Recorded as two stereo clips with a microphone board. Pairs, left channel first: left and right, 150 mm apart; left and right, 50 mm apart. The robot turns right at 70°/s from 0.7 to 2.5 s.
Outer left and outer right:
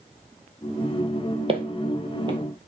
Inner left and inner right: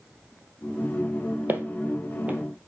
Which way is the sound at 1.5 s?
40° right (ahead or behind).